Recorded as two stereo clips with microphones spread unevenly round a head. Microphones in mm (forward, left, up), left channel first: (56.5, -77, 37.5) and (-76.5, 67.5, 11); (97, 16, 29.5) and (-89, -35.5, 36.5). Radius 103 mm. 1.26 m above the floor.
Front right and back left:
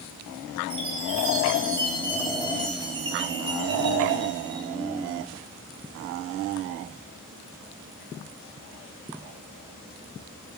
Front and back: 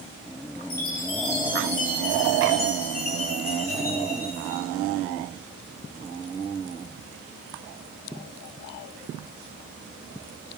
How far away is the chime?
About 3.5 m.